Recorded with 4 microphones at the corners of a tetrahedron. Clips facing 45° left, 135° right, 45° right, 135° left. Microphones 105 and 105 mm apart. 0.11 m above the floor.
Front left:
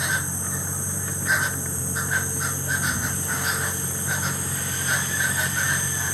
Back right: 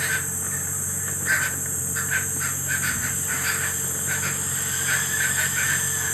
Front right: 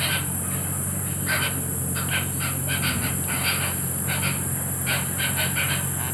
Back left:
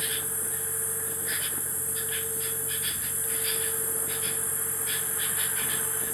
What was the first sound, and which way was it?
An insect, 25° right.